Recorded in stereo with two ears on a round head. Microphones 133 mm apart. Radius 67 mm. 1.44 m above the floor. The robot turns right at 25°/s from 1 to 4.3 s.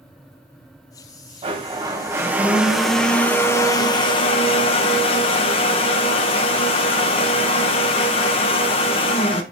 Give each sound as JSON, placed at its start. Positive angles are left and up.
{"t": 1.4, "sound": "a blender", "azimuth_deg": -35, "distance_m": 1.2}